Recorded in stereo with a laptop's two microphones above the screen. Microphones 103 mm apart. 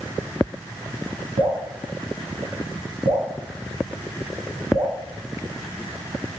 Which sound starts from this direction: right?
Dripping, at 1.4 s.